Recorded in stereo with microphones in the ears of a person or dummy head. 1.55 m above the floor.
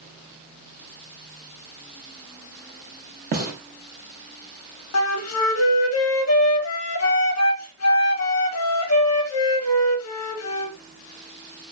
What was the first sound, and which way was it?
A gunshot, 45° right (ahead or behind).